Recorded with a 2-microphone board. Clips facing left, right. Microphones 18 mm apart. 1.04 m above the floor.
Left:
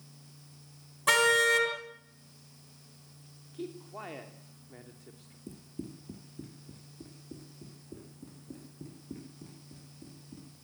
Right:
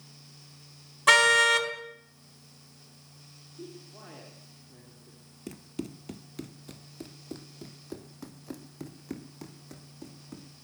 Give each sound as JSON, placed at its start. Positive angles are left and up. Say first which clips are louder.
{"t": 1.1, "sound": "a car horn", "louder": "right 4 dB", "side_deg": -20, "distance_m": 3.5}
{"t": 3.5, "sound": "a man speaking", "louder": "left 5 dB", "side_deg": 45, "distance_m": 3.0}
{"t": 5.5, "sound": "running footsteps", "louder": "right 5 dB", "side_deg": -50, "distance_m": 1.5}